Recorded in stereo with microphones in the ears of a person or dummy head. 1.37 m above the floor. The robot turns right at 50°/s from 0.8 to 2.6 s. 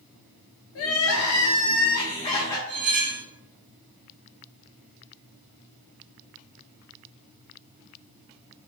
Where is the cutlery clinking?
50° right (ahead or behind), 1.3 m.